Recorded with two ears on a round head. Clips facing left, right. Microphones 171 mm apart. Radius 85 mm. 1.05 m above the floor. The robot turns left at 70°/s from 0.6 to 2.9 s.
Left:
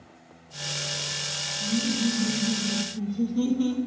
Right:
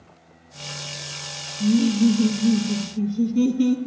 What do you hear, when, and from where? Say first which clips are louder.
1.6 s laughter: right 9 dB; 60° right, 0.6 m; by 3.8 s 150° right, 0.6 m